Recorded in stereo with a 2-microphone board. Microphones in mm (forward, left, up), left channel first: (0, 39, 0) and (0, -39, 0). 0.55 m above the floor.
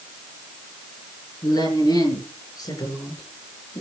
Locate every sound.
1.4 s a woman speaking: 60° left (ahead or behind), 9 m; by 3.8 s 65° left (ahead or behind), 6 m